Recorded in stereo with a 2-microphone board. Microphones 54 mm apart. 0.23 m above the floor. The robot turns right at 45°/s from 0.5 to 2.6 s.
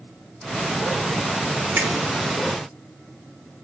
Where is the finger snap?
30° right (ahead or behind), 1.0 m; by 1.9 s 35° right (ahead or behind), 1.0 m.